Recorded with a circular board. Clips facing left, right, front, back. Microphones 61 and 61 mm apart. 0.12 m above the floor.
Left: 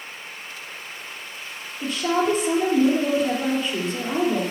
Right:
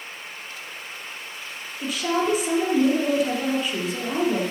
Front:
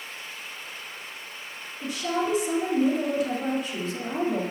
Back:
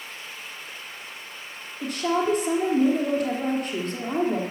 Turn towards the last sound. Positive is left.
turn(degrees=-175)